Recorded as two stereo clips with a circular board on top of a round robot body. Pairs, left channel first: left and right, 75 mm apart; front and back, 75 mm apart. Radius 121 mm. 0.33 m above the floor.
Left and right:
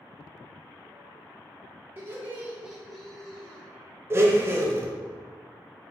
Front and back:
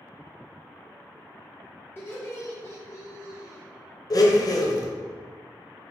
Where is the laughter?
45° right, 1.6 m; by 3.6 s 25° left, 1.8 m.